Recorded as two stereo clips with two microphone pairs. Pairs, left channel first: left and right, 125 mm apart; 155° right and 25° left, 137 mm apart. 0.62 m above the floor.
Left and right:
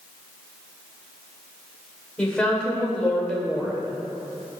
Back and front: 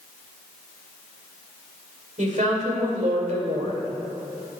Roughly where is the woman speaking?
Ahead.